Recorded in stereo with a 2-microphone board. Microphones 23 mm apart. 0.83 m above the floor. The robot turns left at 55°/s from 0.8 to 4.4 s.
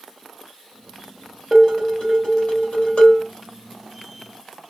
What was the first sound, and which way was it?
Dishes clattering, 155° left.